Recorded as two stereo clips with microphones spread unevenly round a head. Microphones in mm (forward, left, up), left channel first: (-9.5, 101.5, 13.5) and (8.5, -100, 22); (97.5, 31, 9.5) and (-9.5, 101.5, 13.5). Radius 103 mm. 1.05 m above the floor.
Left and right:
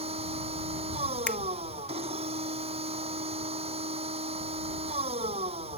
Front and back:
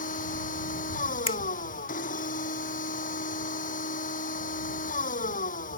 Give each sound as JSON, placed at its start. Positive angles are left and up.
{"t": 0.0, "sound": "a machine running", "azimuth_deg": -20}
{"t": 1.3, "sound": "a finger snap", "azimuth_deg": 10}